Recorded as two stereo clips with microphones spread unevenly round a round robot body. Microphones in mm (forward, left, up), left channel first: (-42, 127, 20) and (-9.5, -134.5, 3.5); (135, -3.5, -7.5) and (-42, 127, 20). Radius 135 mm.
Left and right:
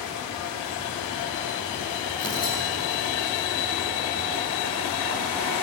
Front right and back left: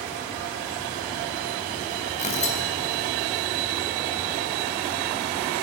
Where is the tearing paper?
20° left, 5 m.